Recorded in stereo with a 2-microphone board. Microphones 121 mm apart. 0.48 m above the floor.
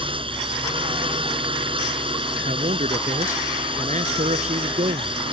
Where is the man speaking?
80° right.